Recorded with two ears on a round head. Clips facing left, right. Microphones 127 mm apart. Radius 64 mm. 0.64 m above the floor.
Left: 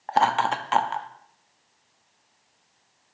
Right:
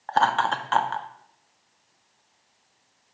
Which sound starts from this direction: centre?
Laughter, at 0.1 s.